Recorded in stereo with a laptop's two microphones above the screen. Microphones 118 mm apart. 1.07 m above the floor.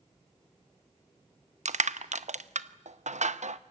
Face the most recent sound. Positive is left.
turn(degrees=-85)